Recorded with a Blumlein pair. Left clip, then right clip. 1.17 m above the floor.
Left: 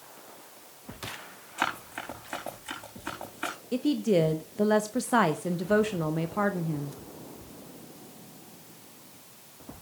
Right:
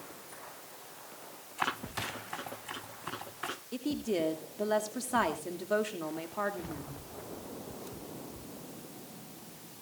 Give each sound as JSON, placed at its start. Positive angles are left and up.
{"t": 1.6, "sound": "running footsteps", "azimuth_deg": 65, "distance_m": 6.0}
{"t": 3.7, "sound": "a woman speaking", "azimuth_deg": 40, "distance_m": 0.7}